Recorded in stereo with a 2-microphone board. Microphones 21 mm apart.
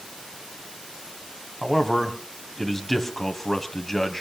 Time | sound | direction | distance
1.6 | a man speaking | 20° left (ahead or behind) | 1.7 m